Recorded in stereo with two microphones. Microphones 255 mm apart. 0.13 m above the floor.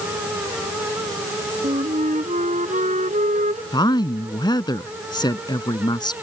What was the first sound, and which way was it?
A flute, 30° right (ahead or behind).